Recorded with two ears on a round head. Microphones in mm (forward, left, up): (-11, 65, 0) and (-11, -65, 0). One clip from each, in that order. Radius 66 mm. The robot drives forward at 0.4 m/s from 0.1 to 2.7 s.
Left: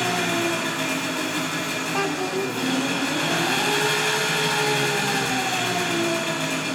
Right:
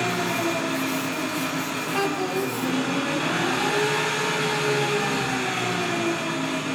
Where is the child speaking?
10° left (ahead or behind), 1.8 m.